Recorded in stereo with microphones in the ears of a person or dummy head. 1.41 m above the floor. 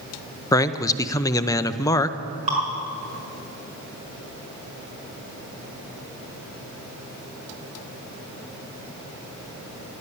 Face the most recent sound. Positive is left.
turn(degrees=-35)  # may be behind; listen again after turning